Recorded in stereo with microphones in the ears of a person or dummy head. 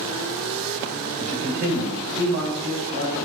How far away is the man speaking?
About 1.3 m.